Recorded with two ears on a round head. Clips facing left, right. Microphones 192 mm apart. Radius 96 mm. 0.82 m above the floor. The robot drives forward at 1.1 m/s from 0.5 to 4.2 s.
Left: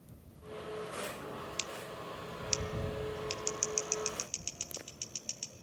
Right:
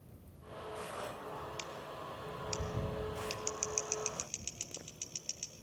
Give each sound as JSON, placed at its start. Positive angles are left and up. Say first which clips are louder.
{"t": 1.6, "sound": "scissors", "louder": "left 2 dB", "side_deg": 45, "distance_m": 0.8}